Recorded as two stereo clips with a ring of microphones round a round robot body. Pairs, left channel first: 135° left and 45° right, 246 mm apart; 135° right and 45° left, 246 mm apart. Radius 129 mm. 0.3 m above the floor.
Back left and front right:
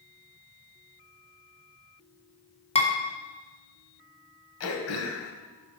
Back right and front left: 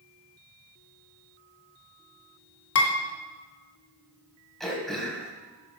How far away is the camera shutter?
No camera shutter in this recording.